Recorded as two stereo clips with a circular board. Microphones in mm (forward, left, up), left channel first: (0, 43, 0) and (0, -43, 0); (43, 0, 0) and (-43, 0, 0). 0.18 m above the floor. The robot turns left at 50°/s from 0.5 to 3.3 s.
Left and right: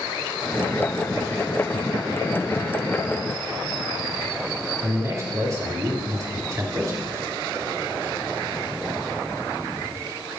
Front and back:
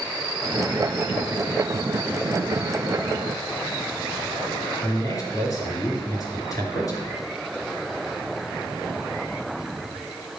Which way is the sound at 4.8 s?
45° right.